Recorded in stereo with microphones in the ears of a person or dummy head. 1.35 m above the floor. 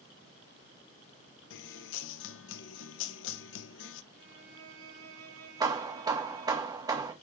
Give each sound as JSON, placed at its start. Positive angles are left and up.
{"t": 1.5, "sound": "a guitar", "side_deg": 75, "distance_m": 0.9}
{"t": 4.1, "sound": "a violin", "side_deg": -80, "distance_m": 4.0}
{"t": 5.6, "sound": "hammering", "side_deg": -15, "distance_m": 1.5}